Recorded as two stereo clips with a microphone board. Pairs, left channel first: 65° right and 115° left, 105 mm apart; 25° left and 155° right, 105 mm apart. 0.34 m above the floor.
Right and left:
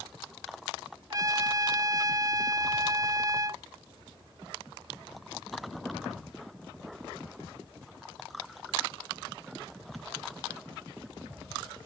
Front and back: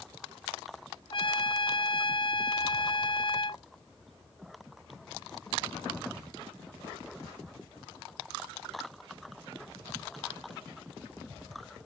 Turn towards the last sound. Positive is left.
turn(degrees=60)